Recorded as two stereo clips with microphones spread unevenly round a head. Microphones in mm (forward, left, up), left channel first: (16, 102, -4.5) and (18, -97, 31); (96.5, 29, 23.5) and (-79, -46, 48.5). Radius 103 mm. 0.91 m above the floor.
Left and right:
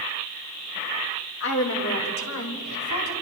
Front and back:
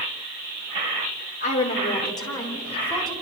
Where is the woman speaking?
75° left, 3 m; by 3.1 s 110° left, 4 m.